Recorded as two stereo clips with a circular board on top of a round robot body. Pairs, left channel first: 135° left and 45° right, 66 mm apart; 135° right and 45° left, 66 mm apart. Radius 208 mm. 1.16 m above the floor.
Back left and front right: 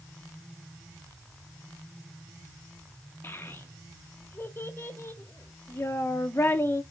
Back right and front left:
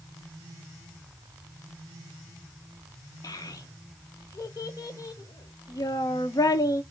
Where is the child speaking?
170° right, 0.9 m.